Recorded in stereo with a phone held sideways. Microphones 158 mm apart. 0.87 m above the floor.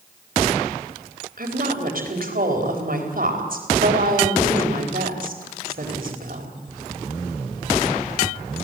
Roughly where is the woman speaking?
Right.